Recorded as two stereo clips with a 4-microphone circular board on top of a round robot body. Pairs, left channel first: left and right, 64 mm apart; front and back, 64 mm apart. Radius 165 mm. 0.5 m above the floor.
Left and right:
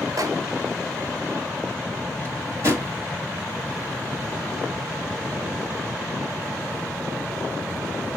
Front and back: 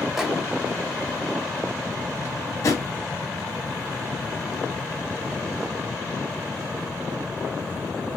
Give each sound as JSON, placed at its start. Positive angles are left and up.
{"t": 0.2, "sound": "a microwave", "azimuth_deg": -95, "distance_m": 1.0}
{"t": 2.2, "sound": "a drawer", "azimuth_deg": -40, "distance_m": 1.8}